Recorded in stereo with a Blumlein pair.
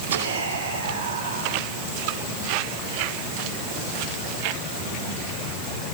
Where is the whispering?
70° right, 3.5 m.